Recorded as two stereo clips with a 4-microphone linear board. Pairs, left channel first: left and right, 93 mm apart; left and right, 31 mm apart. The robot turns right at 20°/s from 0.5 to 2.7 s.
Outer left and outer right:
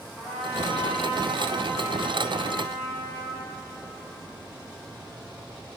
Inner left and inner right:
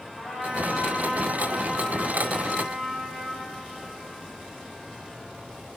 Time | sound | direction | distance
0.2 | a trumpet | 175° left | 4.5 m